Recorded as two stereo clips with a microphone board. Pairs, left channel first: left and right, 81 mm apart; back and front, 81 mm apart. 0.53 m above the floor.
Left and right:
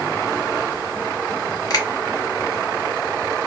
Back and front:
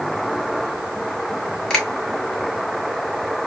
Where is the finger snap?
100° left, 1.6 m.